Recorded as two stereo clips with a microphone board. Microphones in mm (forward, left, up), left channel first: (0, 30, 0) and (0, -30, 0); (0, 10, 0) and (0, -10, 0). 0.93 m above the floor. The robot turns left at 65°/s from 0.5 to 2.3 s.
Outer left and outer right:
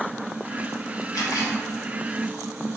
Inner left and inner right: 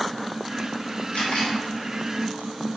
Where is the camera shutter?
75° left (ahead or behind), 1.2 m; by 1.6 s 60° left (ahead or behind), 1.2 m.